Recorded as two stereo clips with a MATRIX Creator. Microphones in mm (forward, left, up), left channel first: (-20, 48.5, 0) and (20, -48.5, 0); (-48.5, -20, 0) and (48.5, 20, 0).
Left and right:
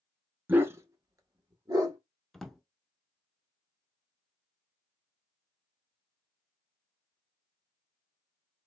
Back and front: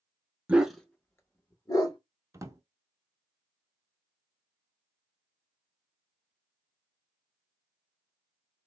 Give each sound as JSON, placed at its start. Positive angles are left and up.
{"t": 0.5, "sound": "a dog barking", "azimuth_deg": -35, "distance_m": 0.5}
{"t": 2.3, "sound": "a drawer", "azimuth_deg": 30, "distance_m": 0.5}